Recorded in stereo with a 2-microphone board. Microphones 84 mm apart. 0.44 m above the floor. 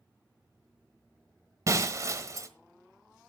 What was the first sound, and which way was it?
Breaking glass, 40° right (ahead or behind).